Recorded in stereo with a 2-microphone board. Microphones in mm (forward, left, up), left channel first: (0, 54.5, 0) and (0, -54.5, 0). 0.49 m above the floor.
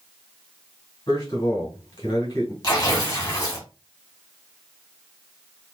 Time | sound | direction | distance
1.1 | a man speaking | 45° left (ahead or behind) | 2.5 m
2.6 | tearing paper | 35° left (ahead or behind) | 2 m